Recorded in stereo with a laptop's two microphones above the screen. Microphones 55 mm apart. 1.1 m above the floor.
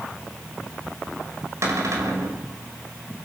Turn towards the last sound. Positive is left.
turn(degrees=-65)  # may be behind; listen again after turning